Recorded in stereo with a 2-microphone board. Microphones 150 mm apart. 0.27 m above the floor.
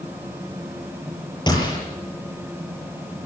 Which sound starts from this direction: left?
A gunshot, at 1.5 s.